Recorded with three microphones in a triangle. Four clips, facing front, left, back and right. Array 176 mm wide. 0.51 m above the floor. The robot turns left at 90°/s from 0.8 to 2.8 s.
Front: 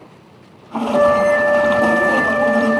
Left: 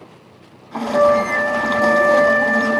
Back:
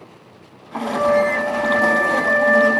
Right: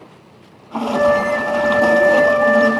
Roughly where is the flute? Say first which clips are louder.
Left 1 dB, front 4 dB; ahead left.